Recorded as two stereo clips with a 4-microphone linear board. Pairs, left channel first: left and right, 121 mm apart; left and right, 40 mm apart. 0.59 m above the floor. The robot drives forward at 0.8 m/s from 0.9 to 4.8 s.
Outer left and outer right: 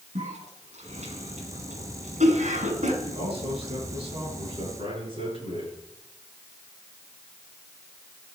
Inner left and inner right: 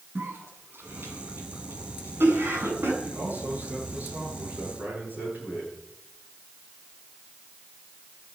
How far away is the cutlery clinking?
No cutlery clinking in this recording.